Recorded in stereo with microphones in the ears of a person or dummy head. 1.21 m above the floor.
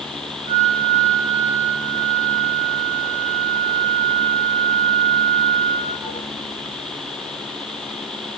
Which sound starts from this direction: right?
A flute, at 0.5 s.